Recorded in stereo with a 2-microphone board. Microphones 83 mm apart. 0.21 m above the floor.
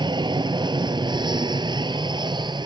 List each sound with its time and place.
0.0 s an aircraft: 60° right (ahead or behind)